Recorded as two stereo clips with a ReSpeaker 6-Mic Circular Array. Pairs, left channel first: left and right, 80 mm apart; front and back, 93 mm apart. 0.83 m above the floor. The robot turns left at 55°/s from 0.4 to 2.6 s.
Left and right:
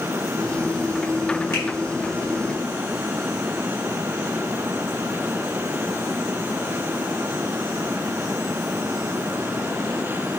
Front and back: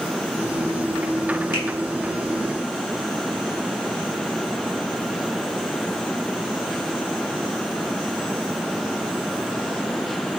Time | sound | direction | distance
1.5 | a finger snap | 35° left | 5.5 m